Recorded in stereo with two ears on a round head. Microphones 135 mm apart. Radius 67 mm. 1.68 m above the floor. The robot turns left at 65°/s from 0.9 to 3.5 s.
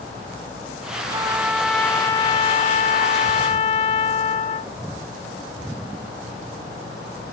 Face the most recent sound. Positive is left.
turn(degrees=60)